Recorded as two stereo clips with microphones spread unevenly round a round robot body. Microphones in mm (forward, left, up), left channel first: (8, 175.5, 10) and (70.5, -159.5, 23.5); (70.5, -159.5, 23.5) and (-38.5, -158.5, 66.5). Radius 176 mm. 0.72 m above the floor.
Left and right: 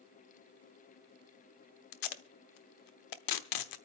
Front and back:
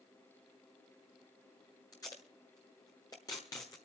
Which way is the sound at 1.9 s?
70° left.